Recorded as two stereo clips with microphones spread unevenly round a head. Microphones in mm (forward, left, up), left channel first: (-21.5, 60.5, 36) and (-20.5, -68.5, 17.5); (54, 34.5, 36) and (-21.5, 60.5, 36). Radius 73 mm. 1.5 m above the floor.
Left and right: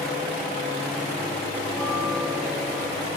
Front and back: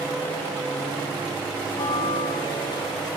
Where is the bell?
5° left, 2 m.